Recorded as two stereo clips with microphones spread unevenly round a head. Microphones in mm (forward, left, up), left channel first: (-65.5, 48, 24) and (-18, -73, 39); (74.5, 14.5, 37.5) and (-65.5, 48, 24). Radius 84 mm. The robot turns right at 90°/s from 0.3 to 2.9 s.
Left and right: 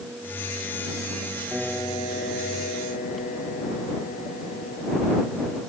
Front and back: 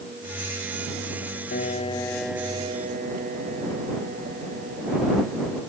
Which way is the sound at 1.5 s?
10° left.